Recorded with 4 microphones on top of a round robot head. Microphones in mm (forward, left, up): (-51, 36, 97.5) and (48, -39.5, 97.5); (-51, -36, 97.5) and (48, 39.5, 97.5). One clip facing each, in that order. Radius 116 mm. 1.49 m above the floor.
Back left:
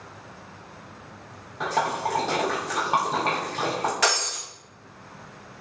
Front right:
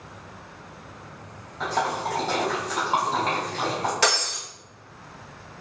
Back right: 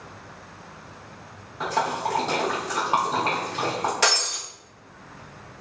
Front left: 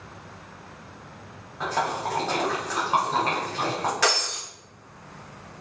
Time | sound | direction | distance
1.6 | a splash | 165° left | 0.5 m
4.0 | breaking glass | 85° right | 0.6 m